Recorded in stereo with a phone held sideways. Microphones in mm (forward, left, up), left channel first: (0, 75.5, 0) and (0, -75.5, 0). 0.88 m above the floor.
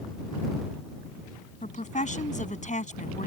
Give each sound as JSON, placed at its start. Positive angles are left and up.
{"t": 1.6, "sound": "a woman speaking", "side_deg": 55}